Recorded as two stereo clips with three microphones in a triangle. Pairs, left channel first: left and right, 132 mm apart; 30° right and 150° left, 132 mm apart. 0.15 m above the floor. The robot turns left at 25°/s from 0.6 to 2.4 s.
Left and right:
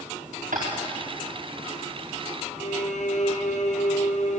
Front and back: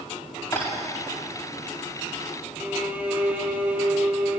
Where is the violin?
70° left, 2.5 m.